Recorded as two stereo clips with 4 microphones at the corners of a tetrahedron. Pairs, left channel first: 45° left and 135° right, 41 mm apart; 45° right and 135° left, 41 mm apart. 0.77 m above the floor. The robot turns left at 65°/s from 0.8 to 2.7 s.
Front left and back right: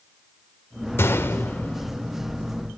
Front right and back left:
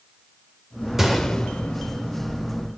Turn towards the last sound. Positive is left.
turn(degrees=-60)